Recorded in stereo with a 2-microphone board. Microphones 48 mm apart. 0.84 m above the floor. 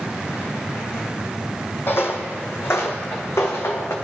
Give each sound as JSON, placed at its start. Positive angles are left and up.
{"t": 1.9, "sound": "footsteps", "side_deg": 55, "distance_m": 1.5}